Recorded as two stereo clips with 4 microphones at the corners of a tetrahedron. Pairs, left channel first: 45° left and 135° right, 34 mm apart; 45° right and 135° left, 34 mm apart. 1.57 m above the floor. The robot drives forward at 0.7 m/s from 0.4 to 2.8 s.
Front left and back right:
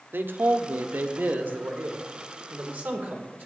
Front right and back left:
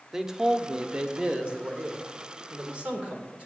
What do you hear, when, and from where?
0.1 s a man speaking: 150° right, 1.0 m; by 3.5 s 170° right, 2.5 m